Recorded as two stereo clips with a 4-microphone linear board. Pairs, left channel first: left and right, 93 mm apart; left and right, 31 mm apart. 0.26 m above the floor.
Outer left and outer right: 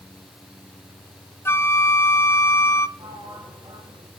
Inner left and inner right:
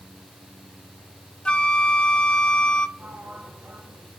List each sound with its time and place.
1.4 s a flute: 30° left (ahead or behind), 1.1 m
3.0 s a sliding door: 60° right (ahead or behind), 9 m